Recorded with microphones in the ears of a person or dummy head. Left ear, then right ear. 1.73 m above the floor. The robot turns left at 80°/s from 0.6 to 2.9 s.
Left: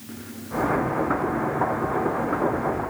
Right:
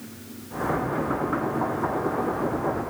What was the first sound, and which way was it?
Only background noise.